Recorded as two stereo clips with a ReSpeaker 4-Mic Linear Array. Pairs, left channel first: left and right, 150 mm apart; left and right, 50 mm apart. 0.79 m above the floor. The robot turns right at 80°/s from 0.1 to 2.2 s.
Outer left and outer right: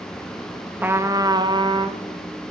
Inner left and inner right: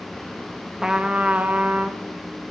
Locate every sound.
0.8 s a trumpet: 155° right, 0.6 m; by 2.0 s 60° right, 0.6 m